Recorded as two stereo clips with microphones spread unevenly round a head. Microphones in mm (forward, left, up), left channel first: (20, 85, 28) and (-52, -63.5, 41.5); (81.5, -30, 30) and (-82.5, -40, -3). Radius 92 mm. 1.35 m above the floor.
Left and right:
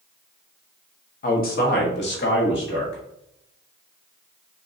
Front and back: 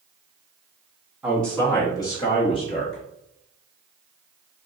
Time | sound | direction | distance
1.2 | a man speaking | 100° left | 0.9 m